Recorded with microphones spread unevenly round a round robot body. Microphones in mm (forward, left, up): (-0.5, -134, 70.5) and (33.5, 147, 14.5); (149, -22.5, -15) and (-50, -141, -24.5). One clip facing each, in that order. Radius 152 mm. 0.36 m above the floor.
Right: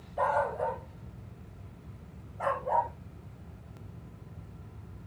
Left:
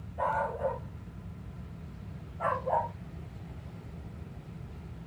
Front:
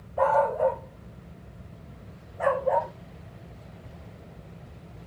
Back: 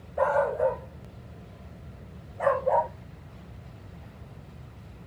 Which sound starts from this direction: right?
A dog barking, at 0.2 s.